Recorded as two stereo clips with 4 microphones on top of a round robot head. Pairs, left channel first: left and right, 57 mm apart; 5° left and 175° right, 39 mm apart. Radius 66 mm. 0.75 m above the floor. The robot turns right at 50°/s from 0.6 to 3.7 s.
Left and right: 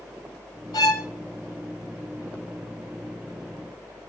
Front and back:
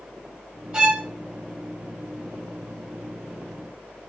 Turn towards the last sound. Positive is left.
turn(degrees=-90)